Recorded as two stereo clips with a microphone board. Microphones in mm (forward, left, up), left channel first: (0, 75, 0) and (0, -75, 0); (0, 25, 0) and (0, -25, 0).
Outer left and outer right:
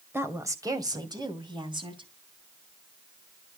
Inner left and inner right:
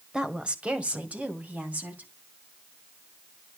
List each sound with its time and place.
0.1 s a woman speaking: 15° right (ahead or behind), 1.8 m; by 2.1 s 35° right (ahead or behind), 3.5 m